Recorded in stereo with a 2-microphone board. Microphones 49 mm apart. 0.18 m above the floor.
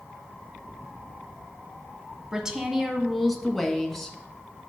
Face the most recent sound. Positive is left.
turn(degrees=10)  # may be behind; listen again after turning